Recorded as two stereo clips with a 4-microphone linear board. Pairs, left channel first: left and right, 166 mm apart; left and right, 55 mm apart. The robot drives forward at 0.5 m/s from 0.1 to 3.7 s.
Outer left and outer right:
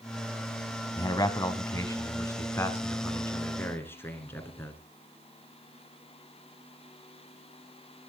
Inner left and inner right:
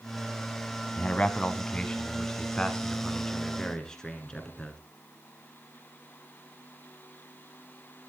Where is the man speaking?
25° left (ahead or behind), 1.4 m; by 4.8 s 15° left (ahead or behind), 2.5 m.